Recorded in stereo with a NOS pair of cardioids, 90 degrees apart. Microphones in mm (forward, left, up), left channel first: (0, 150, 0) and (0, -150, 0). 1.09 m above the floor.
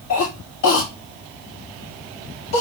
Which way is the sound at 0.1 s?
65° left.